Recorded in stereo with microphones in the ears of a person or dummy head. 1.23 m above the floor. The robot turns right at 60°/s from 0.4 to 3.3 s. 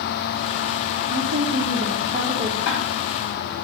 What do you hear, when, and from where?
1.1 s a woman speaking: 100° right, 2.5 m; by 2.5 s 15° right, 2.5 m
2.6 s ticking: 70° left (ahead or behind), 5 m; by 2.8 s 80° left, 5 m